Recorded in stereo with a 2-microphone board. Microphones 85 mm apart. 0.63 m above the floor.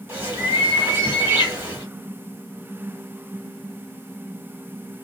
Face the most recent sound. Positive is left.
turn(degrees=-20)  # may be behind; listen again after turning